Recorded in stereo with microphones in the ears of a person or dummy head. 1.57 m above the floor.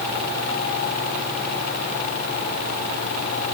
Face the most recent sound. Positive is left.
No sound to turn to.